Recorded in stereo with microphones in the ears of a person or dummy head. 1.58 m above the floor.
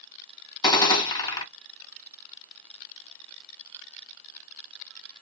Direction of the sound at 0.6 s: 20° left (ahead or behind).